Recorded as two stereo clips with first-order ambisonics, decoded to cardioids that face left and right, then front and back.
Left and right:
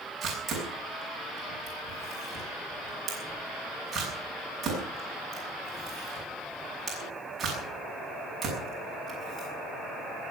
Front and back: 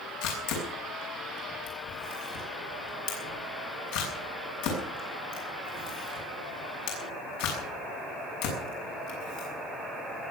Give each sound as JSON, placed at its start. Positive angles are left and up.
{"t": 0.2, "sound": "a camera shutter", "azimuth_deg": -15, "distance_m": 7.0}